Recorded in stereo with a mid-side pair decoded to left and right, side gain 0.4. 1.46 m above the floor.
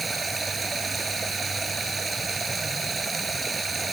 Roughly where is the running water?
Ahead right.